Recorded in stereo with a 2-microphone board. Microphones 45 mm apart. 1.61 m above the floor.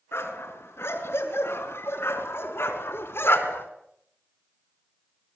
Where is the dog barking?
75° left (ahead or behind), 6 m; by 3.7 s 65° left (ahead or behind), 4.5 m.